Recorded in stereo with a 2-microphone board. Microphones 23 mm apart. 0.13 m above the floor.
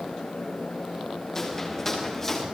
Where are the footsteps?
20° left (ahead or behind), 9.5 m; by 2.5 s 15° left (ahead or behind), 10.5 m.